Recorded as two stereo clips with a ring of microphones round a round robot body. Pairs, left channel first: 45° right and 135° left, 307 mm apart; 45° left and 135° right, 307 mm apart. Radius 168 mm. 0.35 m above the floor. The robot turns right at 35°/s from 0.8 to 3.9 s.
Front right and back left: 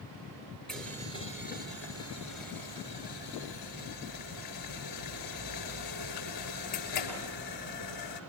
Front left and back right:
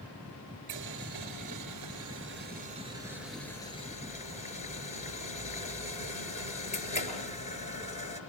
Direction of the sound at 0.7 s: 130° right.